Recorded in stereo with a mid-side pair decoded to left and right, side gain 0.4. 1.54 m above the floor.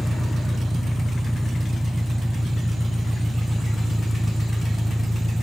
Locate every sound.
0.0 s an engine running: 5° right